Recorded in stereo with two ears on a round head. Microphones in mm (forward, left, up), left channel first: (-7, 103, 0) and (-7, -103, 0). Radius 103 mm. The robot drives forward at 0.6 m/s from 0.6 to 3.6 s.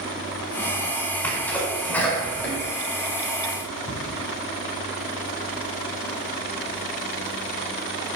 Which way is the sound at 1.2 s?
10° left (ahead or behind).